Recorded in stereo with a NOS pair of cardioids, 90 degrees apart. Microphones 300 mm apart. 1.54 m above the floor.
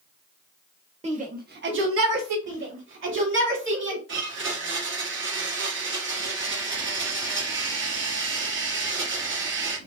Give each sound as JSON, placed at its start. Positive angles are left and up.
{"t": 1.0, "sound": "a shout", "azimuth_deg": -20, "distance_m": 1.7}
{"t": 2.5, "sound": "a shout", "azimuth_deg": -40, "distance_m": 2.5}
{"t": 4.1, "sound": "a blender", "azimuth_deg": -40, "distance_m": 1.9}